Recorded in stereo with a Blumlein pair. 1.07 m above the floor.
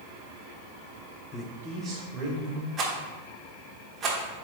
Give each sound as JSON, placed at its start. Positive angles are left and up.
{"t": 1.3, "sound": "a man speaking", "azimuth_deg": 30, "distance_m": 0.5}
{"t": 2.8, "sound": "a rattle", "azimuth_deg": -25, "distance_m": 1.1}